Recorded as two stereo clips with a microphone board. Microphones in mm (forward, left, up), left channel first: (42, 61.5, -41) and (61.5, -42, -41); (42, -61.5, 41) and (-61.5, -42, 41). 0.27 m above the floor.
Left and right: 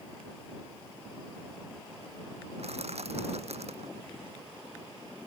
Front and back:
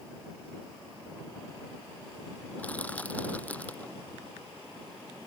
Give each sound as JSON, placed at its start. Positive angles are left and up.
{"t": 2.6, "sound": "crushing", "azimuth_deg": -85}